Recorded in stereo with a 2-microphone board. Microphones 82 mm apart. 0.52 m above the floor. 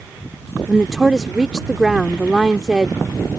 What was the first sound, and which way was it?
A woman speaking, 5° right (ahead or behind).